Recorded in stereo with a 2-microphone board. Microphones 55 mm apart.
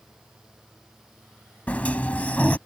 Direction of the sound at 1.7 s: 30° left (ahead or behind).